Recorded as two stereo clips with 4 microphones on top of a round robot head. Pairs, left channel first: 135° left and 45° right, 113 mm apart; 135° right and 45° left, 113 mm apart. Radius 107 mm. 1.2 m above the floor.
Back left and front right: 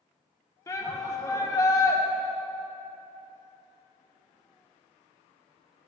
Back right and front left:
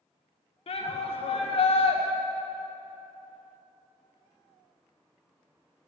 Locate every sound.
0.7 s a shout: 165° right, 1.6 m